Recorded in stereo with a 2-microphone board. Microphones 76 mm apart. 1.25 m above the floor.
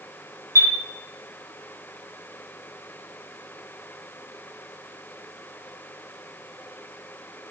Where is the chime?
50° right (ahead or behind), 0.5 m.